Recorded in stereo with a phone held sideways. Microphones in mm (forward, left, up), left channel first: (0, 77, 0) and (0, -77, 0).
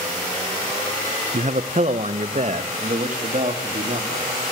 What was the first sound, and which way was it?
A man speaking, 50° right (ahead or behind).